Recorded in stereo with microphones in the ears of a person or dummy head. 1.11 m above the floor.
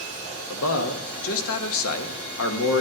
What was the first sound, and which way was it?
A man speaking, 75° left (ahead or behind).